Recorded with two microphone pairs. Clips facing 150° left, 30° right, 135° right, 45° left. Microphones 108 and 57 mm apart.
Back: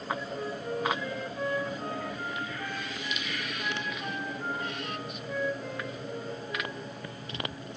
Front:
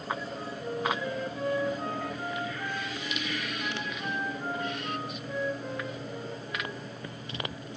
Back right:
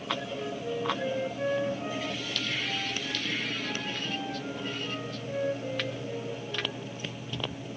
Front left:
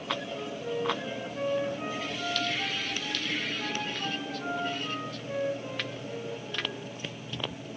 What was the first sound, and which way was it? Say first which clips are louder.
A flute: back 1 dB, even; 45° left.